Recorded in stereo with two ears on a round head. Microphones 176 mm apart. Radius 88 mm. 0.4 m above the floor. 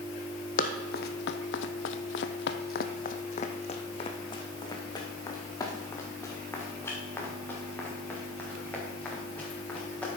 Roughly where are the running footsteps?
Left.